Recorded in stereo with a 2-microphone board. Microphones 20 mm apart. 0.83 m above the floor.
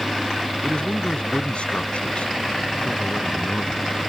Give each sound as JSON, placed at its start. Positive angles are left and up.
{"t": 0.6, "sound": "a man speaking", "side_deg": 70}